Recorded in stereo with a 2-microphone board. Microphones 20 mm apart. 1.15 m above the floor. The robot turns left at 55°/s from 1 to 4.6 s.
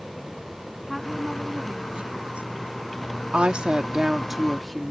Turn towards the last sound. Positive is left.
turn(degrees=180)